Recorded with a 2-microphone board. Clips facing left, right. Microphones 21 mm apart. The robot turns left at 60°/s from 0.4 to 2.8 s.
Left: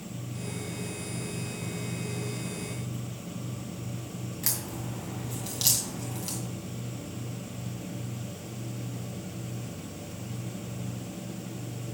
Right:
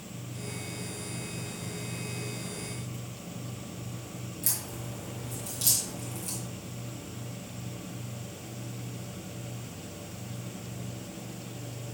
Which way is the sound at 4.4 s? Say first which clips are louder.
Left 2 dB; 50° left (ahead or behind).